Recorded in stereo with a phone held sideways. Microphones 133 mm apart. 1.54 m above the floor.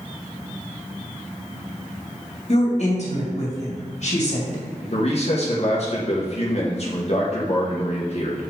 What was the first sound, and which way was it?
A woman speaking, 55° left (ahead or behind).